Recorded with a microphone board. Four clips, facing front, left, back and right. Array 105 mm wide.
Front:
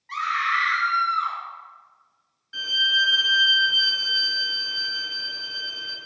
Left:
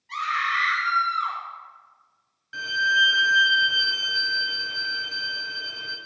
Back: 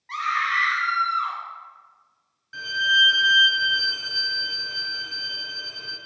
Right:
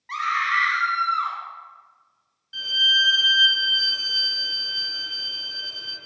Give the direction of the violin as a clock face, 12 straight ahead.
9 o'clock.